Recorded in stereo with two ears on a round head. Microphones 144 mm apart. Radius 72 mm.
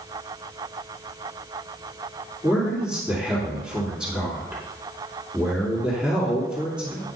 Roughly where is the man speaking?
Centre.